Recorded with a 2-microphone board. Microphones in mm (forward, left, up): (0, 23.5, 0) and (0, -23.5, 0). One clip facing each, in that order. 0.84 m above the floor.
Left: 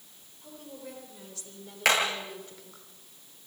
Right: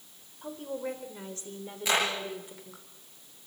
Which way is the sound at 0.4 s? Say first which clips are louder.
Right 9 dB; 45° right (ahead or behind).